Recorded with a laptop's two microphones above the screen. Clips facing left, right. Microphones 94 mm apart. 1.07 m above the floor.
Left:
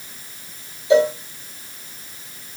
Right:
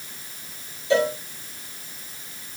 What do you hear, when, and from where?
0.9 s a cowbell: 20° left (ahead or behind), 2.5 m